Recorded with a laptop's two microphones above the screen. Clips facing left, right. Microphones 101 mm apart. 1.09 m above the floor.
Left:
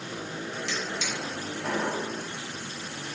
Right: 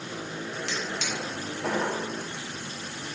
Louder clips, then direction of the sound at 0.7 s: Right 1 dB; 60° right (ahead or behind).